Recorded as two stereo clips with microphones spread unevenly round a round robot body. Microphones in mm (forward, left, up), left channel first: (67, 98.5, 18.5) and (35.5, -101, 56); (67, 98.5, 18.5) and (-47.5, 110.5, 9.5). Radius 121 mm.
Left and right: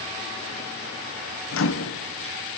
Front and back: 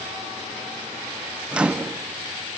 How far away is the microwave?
About 1.0 m.